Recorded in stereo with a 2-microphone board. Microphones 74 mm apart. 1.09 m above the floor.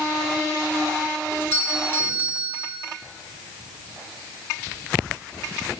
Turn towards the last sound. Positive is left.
turn(degrees=35)  # may be behind; listen again after turning